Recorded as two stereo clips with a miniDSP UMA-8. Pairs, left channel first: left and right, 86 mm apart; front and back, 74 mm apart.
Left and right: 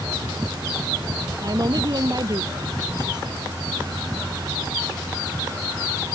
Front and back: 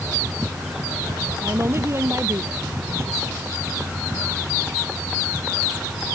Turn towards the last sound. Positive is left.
turn(degrees=-130)